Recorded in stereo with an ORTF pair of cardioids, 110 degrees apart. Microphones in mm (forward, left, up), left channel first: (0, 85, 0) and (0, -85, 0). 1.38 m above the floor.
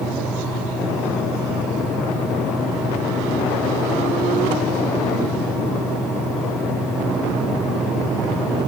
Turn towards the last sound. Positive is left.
turn(degrees=-5)